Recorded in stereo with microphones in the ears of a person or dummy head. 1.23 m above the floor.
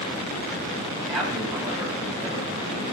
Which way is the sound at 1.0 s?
5° right (ahead or behind).